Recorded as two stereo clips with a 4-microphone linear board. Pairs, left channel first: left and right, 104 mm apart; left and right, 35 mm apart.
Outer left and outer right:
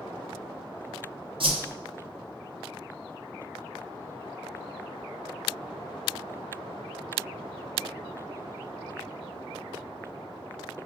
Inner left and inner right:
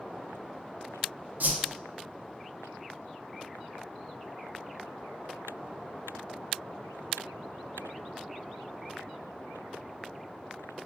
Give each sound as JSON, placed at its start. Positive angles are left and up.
{"t": 1.4, "sound": "a whoosh", "side_deg": -60, "distance_m": 0.7}